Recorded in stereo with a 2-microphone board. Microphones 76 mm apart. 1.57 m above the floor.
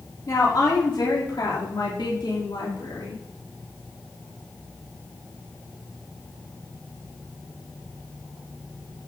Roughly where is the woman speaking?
Left.